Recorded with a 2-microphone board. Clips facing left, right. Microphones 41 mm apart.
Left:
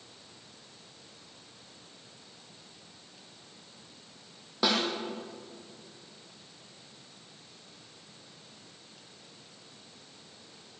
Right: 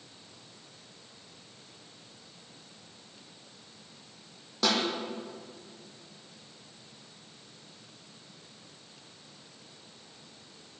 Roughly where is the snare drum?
Centre.